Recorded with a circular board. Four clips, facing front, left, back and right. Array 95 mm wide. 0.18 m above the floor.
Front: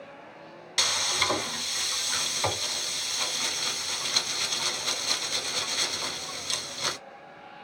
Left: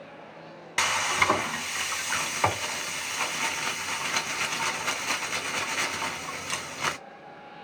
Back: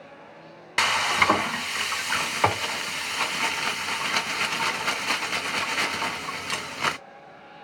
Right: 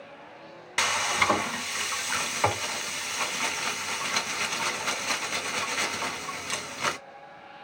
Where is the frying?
175° left, 0.5 m.